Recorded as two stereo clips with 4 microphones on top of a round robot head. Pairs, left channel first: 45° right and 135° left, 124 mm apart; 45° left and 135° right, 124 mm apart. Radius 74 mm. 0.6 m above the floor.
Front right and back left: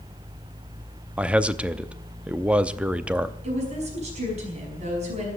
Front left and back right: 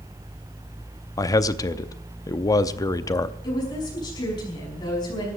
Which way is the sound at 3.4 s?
105° left.